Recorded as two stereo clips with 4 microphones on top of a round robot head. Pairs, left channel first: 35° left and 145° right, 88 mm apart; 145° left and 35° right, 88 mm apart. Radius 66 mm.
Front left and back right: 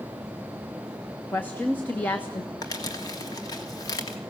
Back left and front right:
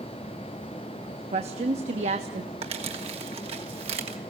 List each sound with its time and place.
1.3 s a woman speaking: 35° right, 1.4 m
2.6 s crumpling: 15° right, 2.5 m